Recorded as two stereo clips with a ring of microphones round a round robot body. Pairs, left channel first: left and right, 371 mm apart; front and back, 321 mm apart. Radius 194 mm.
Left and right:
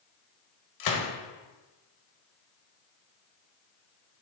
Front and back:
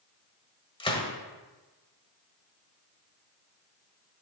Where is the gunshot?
70° left, 1.5 m.